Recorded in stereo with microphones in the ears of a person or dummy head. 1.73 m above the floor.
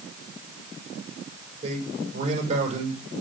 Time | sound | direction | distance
1.6 | a man speaking | 45° right (ahead or behind) | 5.5 m